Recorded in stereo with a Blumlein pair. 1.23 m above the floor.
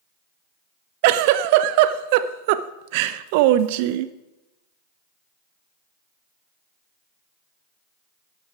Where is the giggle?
45° right, 0.6 m.